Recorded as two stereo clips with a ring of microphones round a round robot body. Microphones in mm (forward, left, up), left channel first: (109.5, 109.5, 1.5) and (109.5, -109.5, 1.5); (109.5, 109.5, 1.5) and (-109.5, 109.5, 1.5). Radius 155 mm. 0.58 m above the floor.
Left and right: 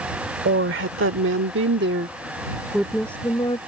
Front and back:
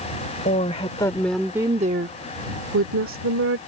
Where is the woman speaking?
65° right; by 3.6 s 165° left.